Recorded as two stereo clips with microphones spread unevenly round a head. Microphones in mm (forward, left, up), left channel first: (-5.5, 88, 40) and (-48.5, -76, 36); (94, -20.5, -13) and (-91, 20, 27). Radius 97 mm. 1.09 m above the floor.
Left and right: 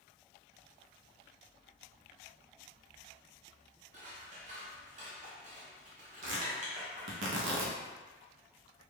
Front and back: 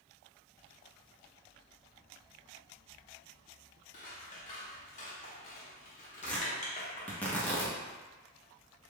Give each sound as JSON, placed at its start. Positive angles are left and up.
{"t": 3.9, "sound": "scissors", "azimuth_deg": -60, "distance_m": 0.8}
{"t": 6.2, "sound": "tearing paper", "azimuth_deg": -100, "distance_m": 0.7}